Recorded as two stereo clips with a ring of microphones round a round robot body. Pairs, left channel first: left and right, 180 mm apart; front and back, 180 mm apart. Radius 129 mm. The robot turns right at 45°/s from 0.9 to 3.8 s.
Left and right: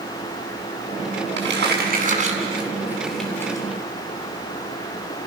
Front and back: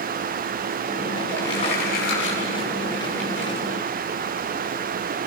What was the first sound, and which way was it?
Crumpling, 80° right.